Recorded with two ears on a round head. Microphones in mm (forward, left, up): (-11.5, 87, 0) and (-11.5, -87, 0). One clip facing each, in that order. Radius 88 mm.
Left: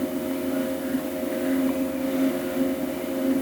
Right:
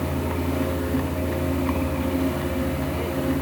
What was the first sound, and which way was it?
A vehicle, 65° right (ahead or behind).